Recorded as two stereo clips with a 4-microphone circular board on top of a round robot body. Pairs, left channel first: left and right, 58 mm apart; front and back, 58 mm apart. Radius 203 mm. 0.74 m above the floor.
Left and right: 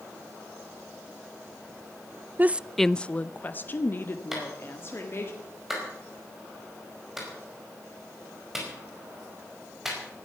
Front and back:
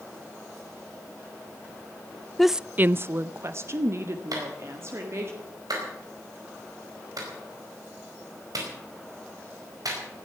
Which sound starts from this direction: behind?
A clap, at 4.3 s.